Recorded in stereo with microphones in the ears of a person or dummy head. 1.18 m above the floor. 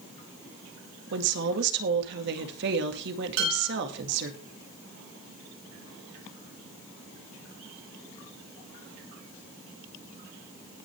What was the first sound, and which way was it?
A woman speaking, 65° right (ahead or behind).